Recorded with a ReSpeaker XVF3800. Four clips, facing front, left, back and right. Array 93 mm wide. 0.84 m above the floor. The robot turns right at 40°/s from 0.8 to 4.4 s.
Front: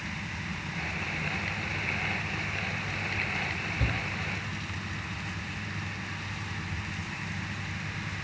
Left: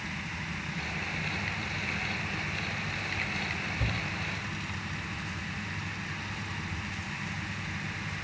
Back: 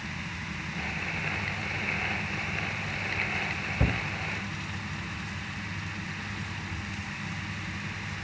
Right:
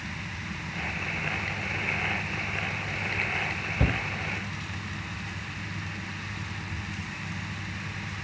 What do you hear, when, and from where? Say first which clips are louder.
3.8 s a shout: right 10 dB, back 4 dB; 125° right, 0.8 m; by 4.0 s 115° right, 0.8 m